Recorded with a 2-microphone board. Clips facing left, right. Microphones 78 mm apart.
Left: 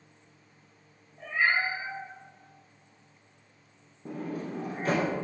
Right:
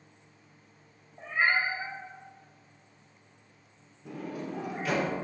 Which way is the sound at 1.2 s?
30° right (ahead or behind).